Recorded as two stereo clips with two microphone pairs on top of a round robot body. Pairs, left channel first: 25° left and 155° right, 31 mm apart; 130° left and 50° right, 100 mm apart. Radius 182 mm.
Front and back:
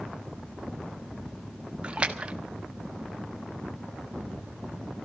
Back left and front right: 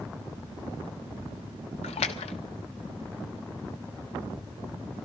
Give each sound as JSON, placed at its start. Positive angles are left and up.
{"t": 1.8, "sound": "a splash", "azimuth_deg": 145, "distance_m": 0.5}